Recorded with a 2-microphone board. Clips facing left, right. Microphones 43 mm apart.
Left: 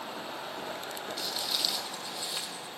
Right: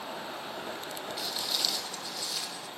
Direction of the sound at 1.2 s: 5° right (ahead or behind).